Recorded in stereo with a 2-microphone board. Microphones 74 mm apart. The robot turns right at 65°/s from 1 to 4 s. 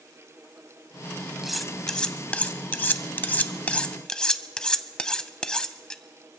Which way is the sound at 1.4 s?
5° right (ahead or behind).